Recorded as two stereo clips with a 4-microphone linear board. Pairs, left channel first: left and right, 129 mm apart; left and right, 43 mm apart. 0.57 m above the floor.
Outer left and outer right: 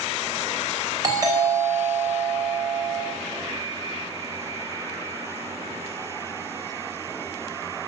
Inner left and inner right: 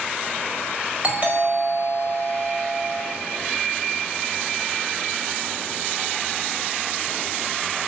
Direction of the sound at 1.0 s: 30° right (ahead or behind).